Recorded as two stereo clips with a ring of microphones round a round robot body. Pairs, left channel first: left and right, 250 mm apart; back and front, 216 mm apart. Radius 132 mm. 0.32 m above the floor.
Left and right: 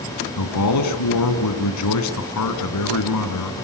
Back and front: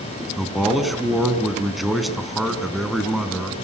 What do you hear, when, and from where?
0.4 s a man speaking: 90° left, 4 m